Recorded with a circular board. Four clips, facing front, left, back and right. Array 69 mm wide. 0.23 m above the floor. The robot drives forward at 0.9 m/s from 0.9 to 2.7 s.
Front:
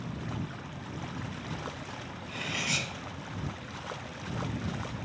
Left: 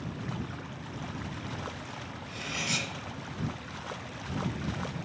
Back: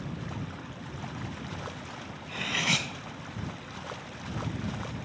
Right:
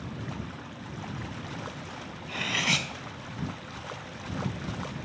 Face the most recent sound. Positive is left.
turn(degrees=-130)